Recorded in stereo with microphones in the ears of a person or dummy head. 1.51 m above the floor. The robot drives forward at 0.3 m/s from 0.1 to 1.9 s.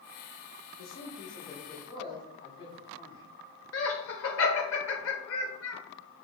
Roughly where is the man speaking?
Left.